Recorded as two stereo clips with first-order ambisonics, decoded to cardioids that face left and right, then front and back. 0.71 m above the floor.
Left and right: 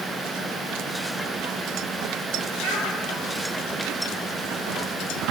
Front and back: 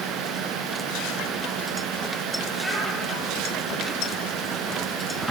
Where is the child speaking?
95° right, 3 m.